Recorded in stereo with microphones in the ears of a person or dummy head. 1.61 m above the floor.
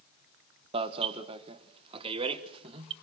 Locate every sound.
0.7 s an alarm: 30° right (ahead or behind), 1.1 m